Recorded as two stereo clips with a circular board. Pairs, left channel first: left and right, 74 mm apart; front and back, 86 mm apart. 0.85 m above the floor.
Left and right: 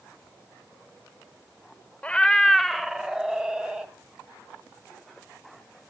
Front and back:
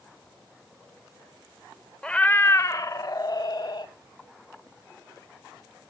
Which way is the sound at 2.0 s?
60° left.